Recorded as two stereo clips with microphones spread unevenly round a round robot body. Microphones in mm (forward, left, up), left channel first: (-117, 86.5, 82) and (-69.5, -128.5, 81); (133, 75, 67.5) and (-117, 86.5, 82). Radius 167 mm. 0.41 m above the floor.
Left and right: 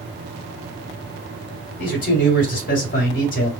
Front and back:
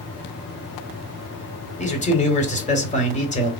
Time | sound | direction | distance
1.8 | a man speaking | 55° left | 2 m